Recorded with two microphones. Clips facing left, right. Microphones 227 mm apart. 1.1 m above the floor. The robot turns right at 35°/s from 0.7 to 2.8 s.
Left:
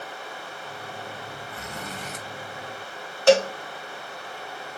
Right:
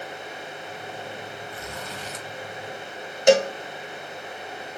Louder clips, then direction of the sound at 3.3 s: Even; 20° right (ahead or behind).